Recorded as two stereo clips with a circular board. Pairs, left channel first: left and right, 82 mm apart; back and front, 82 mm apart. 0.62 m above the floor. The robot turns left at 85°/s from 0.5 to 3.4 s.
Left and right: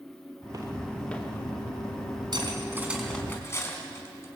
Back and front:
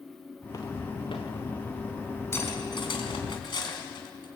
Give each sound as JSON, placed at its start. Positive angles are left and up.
{"t": 0.4, "sound": "footsteps", "azimuth_deg": -130, "distance_m": 3.0}
{"t": 2.3, "sound": "cutlery clinking", "azimuth_deg": -120, "distance_m": 3.5}